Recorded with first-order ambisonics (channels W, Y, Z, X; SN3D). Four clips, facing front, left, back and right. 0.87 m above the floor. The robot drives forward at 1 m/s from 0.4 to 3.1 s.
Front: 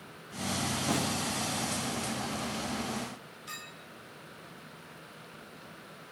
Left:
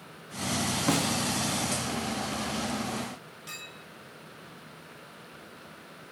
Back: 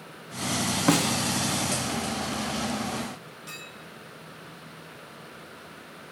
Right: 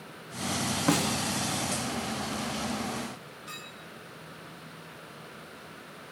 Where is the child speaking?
No child speaking in this recording.